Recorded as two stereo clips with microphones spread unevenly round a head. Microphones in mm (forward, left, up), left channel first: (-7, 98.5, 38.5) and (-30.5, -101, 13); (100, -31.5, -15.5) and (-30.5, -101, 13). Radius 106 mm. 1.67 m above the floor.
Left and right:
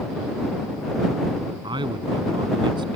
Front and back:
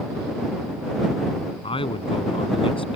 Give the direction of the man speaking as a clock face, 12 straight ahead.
1 o'clock.